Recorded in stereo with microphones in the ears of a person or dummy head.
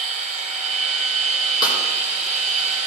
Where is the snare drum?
30° left (ahead or behind), 3.5 m.